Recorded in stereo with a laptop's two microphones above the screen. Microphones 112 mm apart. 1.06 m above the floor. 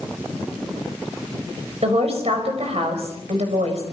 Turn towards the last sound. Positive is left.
turn(degrees=-65)  # may be behind; listen again after turning